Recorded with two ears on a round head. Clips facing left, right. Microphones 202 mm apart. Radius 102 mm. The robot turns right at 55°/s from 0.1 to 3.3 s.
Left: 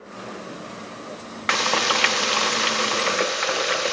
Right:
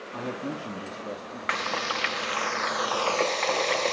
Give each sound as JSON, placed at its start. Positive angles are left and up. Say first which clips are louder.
{"t": 0.1, "sound": "a man speaking", "louder": "right 4 dB", "azimuth_deg": -100, "distance_m": 2.5}
{"t": 1.5, "sound": "frying", "louder": "left 8 dB", "azimuth_deg": 65, "distance_m": 0.5}